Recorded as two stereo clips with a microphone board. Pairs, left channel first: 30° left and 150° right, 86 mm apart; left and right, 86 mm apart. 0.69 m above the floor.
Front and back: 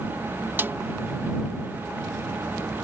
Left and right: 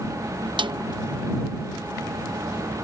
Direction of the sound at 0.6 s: 85° right.